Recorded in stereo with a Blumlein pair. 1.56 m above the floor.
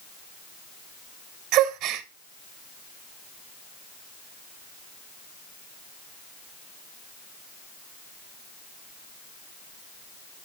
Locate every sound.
1.5 s a gasp: 35° right, 0.8 m